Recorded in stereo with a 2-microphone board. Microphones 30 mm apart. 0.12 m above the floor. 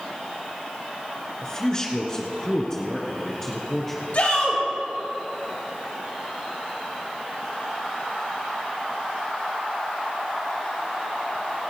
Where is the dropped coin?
No dropped coin in this recording.